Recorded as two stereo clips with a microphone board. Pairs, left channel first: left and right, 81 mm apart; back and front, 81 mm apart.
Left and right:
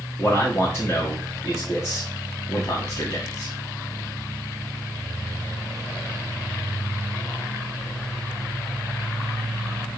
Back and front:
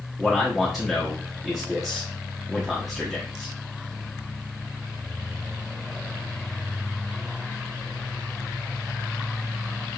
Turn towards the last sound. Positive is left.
turn(degrees=90)